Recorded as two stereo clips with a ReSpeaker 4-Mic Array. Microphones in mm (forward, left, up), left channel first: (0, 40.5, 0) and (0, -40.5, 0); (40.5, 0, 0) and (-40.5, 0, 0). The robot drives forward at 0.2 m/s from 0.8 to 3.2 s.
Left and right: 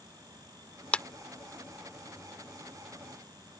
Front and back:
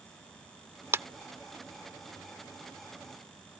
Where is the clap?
155° left.